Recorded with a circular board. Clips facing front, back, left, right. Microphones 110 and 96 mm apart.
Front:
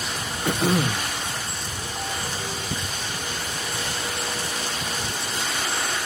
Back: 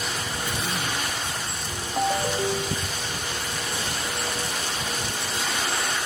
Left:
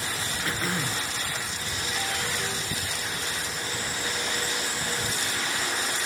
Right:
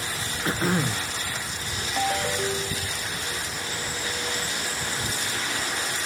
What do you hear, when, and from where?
0.5 s throat clearing: 30° right
2.0 s a ringtone: 135° right